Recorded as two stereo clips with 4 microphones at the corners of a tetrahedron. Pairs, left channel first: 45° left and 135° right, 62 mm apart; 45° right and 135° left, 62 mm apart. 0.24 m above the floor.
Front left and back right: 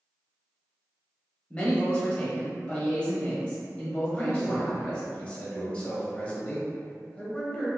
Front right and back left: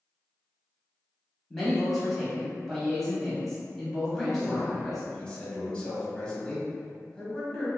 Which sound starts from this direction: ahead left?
A man speaking, at 1.5 s.